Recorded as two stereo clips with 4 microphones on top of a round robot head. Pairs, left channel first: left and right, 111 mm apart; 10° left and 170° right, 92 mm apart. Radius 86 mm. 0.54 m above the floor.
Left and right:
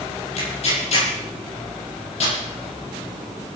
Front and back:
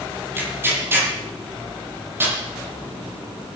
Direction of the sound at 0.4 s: 125° left.